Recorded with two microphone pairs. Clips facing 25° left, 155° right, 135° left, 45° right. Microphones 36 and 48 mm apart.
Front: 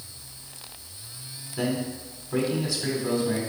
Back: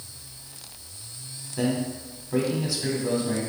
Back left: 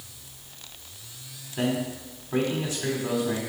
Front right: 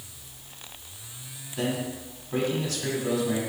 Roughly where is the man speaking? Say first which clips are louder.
Back 2 dB, back left 2 dB; behind left.